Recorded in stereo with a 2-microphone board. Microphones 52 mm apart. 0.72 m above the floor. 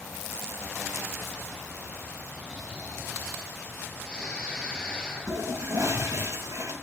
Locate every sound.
2.4 s snoring: 20° left (ahead or behind), 3.5 m
5.3 s a toilet flushing: 75° right (ahead or behind), 2.5 m